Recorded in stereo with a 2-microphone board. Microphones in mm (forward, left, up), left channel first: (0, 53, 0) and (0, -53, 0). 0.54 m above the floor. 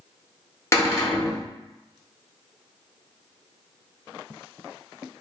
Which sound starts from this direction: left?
A cupboard door, at 0.7 s.